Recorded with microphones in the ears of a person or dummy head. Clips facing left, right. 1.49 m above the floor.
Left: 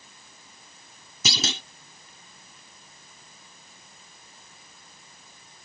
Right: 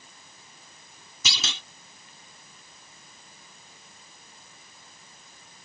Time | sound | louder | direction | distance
1.2 | a clunk | left 7 dB | 40° left (ahead or behind) | ?